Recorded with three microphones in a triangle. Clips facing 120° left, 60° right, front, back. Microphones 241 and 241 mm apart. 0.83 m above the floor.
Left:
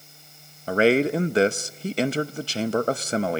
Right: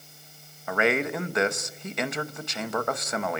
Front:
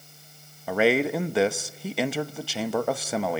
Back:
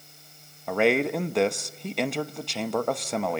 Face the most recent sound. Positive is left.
turn(degrees=85)